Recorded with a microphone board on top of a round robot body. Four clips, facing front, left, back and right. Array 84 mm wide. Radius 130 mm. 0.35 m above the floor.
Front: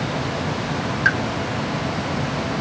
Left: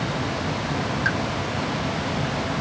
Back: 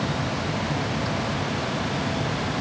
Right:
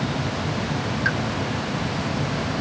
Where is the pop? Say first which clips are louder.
Right 1 dB, front 8 dB; 5° right.